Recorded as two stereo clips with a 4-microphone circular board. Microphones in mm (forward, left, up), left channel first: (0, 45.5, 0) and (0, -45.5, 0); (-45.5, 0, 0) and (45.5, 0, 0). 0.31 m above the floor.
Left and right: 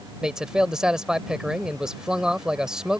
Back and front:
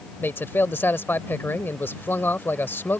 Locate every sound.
0.2 s a man speaking: 160° right